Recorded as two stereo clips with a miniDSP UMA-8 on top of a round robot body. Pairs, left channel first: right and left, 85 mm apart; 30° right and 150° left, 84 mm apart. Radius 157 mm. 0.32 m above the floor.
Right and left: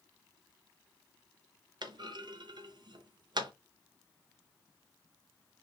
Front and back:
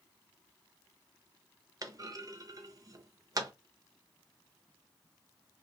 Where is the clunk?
105° left, 0.6 m.